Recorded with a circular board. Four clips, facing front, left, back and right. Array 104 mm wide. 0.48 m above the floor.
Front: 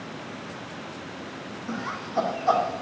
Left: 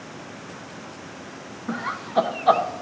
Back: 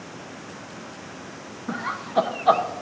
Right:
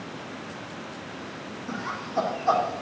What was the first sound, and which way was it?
Laughter, 130° left.